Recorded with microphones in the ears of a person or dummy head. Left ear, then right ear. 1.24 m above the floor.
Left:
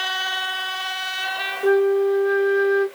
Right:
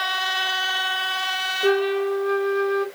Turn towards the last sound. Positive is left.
turn(degrees=0)  # may be behind; listen again after turning